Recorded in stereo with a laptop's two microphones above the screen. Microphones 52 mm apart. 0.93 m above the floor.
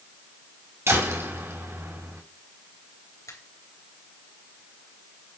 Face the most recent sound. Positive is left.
turn(degrees=80)